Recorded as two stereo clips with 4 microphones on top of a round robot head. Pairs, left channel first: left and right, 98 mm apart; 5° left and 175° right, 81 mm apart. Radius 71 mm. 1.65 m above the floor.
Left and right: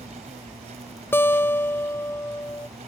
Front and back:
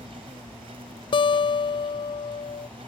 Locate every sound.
0.0 s an insect: 130° right
1.1 s a guitar: 20° left